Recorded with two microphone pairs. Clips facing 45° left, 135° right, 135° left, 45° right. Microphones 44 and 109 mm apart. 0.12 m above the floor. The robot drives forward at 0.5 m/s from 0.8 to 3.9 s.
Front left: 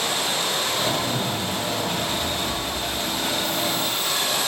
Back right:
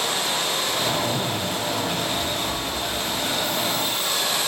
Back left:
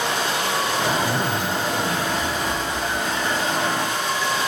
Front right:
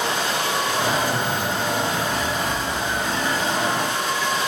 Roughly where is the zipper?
Behind.